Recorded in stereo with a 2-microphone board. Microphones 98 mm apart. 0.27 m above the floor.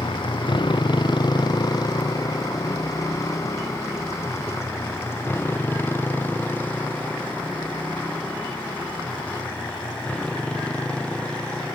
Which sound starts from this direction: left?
A motorcycle, at 0.0 s.